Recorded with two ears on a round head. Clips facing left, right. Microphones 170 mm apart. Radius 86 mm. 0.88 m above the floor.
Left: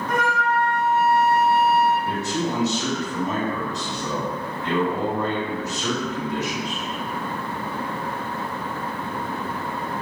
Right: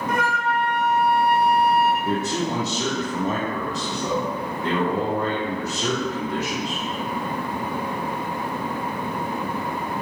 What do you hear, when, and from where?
0.1 s a flute: 10° right (ahead or behind), 1.7 m
2.0 s a man speaking: 25° right (ahead or behind), 0.8 m